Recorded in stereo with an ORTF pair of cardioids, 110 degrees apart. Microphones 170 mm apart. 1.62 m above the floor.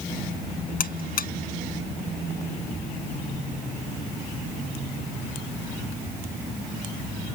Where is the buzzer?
55° left.